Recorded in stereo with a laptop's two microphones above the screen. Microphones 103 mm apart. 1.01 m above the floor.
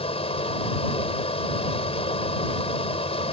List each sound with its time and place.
0.0 s a fan: 80° left